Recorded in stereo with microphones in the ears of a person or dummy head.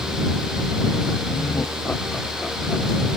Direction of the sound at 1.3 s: 15° left (ahead or behind).